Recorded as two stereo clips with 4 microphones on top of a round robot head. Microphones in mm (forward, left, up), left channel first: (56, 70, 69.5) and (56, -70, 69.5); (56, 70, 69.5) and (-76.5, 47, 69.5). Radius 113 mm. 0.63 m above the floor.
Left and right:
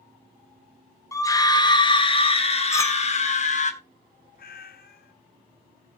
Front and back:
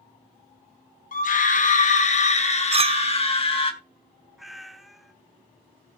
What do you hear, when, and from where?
1.1 s a scream: 20° left, 2.5 m; by 3.7 s 55° left, 3.5 m
2.7 s a clink: 155° left, 0.8 m
4.4 s a cat meowing: 100° left, 1.3 m